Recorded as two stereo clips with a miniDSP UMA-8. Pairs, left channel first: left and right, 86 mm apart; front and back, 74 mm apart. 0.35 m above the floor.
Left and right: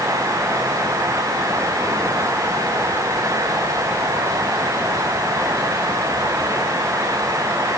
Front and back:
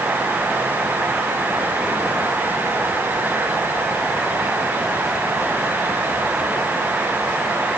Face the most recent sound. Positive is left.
No sound to turn to.